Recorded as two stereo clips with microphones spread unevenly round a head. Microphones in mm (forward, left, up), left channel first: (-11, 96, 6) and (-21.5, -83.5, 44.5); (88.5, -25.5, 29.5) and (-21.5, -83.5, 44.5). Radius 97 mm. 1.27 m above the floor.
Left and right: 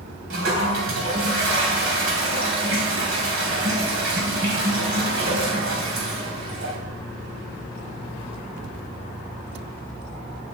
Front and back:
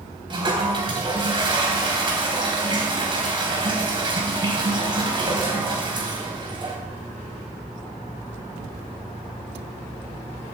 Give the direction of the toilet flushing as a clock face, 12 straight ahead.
3 o'clock.